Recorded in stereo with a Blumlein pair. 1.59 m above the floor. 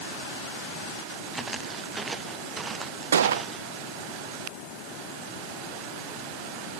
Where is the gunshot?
65° right.